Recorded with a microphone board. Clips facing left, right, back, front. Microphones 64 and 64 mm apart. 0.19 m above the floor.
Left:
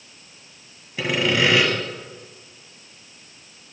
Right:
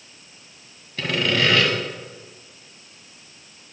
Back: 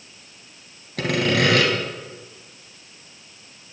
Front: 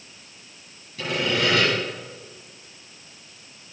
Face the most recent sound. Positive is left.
turn(degrees=165)